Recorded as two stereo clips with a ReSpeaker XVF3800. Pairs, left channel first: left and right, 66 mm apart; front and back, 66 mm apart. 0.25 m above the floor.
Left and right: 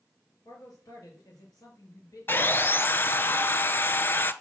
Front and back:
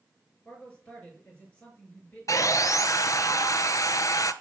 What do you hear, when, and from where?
0.5 s a man speaking: 70° left, 4.5 m
2.3 s sawing: 30° left, 0.6 m